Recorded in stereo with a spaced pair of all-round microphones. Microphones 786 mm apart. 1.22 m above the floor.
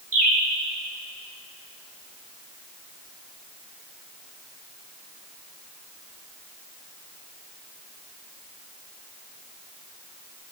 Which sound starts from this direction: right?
A bird, at 0.1 s.